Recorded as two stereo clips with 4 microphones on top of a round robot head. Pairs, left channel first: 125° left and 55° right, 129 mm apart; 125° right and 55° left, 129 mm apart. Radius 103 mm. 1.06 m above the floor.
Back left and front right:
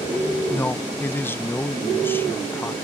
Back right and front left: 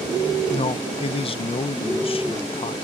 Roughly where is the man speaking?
Behind.